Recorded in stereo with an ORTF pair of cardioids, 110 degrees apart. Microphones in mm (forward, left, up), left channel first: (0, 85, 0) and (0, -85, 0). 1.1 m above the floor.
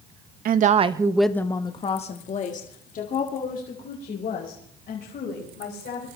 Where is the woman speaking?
55° right, 0.9 m; by 6.1 s 60° left, 5.5 m.